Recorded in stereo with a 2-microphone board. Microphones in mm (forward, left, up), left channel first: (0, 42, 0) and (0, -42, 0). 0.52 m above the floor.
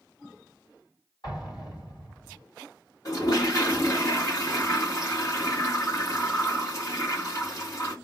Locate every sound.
1.2 s an explosion: 60° left (ahead or behind), 2 m
3.0 s a toilet flushing: 40° left (ahead or behind), 1.8 m